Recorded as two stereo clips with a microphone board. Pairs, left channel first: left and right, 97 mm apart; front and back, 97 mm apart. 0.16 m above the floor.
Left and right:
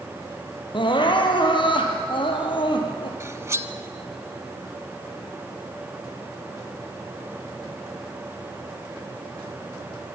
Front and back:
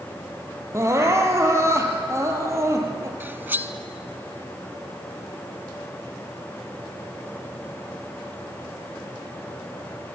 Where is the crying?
120° left, 3.5 m.